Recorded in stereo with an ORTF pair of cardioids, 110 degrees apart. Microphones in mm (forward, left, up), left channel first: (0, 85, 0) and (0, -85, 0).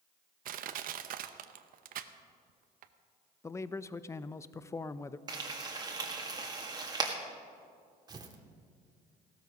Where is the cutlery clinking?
I don't hear cutlery clinking.